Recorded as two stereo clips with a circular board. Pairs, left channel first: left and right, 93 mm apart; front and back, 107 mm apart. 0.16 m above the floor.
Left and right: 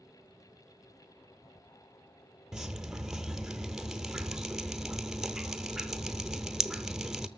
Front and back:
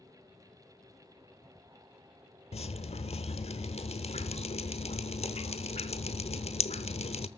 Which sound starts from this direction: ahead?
Dripping, at 2.5 s.